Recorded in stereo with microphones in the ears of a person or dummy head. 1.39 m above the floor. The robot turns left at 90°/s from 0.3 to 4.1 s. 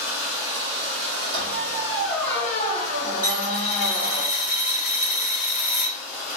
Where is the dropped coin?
150° right, 1.1 m; by 6.0 s 130° left, 1.1 m.